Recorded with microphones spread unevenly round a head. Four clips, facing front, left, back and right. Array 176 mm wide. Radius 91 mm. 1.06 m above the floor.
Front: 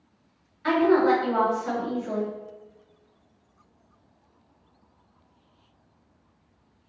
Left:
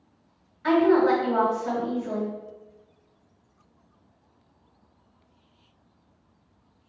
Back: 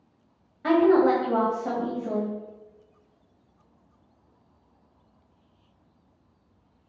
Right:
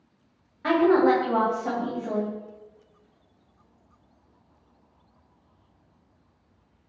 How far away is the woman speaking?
About 1.5 m.